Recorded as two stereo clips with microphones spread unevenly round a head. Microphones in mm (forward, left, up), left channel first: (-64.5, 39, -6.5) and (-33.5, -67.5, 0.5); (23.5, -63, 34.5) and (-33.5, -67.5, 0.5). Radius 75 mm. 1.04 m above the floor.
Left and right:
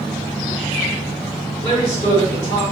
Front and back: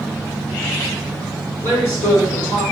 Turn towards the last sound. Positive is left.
turn(degrees=100)